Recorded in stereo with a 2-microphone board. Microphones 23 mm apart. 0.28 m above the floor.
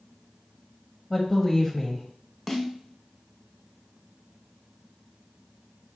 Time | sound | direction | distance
1.1 | a woman speaking | 10° left (ahead or behind) | 1.1 m
2.5 | a snare drum | centre (ahead or behind) | 0.8 m